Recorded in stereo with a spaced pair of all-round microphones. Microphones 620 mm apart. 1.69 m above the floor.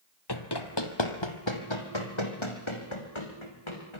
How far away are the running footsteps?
About 2.5 m.